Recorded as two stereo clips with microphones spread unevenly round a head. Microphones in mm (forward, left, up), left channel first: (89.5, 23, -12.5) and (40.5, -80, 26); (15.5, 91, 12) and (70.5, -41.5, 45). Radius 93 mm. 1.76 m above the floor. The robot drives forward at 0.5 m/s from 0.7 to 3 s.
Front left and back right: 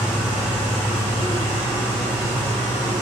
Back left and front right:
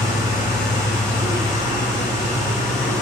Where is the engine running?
165° left, 7.5 m; by 3.0 s 170° left, 8.5 m.